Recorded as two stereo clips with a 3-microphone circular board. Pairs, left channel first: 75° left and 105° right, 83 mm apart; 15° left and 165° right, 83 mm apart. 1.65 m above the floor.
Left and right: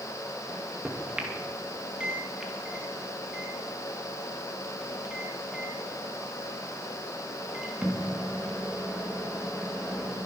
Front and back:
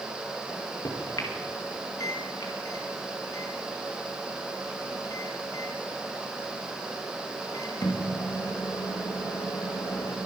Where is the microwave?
25° right, 2.5 m.